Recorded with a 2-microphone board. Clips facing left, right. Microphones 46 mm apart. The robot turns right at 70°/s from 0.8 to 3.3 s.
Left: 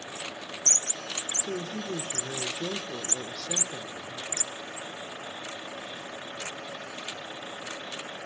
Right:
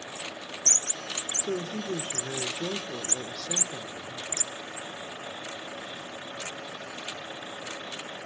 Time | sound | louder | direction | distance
1.4 | a woman speaking | right 3 dB | 120° right | 1.0 m